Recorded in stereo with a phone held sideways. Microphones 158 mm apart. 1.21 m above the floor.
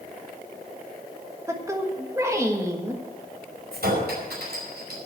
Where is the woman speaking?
20° right (ahead or behind), 1.4 m.